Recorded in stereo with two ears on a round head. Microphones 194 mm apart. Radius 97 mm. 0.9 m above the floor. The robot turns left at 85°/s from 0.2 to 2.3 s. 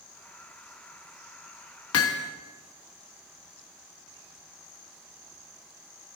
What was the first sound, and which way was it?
Hammering, 75° left.